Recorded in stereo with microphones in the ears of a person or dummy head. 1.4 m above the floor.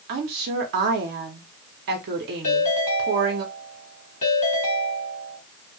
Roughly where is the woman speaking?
Right.